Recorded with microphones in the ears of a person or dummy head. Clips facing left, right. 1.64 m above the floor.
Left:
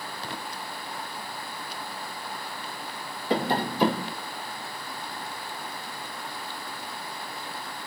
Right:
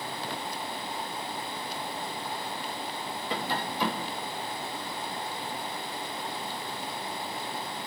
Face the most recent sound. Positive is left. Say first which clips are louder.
# left 8 dB
turn(degrees=55)  # may be behind; listen again after turning